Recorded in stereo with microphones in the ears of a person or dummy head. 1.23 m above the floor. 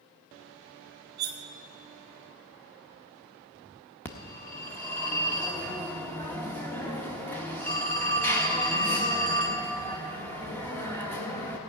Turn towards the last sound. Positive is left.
turn(degrees=10)  # may be behind; listen again after turning